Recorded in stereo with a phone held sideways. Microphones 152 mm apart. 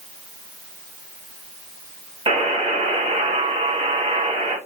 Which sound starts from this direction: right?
A buzzer, at 2.3 s.